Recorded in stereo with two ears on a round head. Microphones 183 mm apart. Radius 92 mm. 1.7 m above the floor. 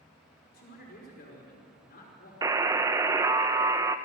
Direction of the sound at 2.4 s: 15° right (ahead or behind).